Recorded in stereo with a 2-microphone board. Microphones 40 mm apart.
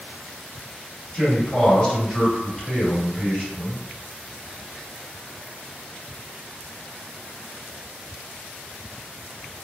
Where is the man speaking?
25° left (ahead or behind), 1.8 m.